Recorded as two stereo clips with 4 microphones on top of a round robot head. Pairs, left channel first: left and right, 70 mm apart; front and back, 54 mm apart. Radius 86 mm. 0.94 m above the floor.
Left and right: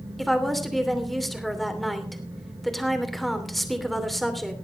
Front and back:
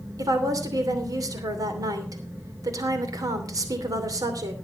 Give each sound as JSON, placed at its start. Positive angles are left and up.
{"t": 0.2, "sound": "a woman speaking", "azimuth_deg": 180, "distance_m": 2.5}